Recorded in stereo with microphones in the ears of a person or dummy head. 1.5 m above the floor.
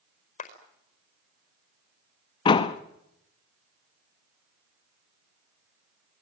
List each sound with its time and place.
0.4 s a clap: 35° left (ahead or behind), 4.5 m
2.5 s a door slam: 20° left (ahead or behind), 1.2 m